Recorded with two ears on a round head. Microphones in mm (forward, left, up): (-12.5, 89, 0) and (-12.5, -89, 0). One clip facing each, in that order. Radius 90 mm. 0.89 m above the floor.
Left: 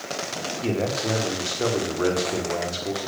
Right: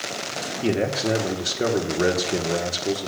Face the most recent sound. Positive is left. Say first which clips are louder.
# right 3 dB
turn(degrees=-20)  # may be behind; listen again after turning